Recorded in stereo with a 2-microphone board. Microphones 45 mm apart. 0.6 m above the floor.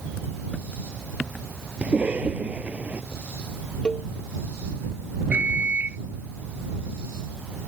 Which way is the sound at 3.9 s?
20° left (ahead or behind).